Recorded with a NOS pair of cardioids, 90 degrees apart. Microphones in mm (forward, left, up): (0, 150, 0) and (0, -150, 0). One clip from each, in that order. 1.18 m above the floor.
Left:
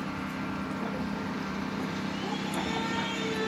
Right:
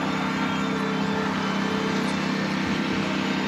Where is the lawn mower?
60° right; by 3.5 s 55° right.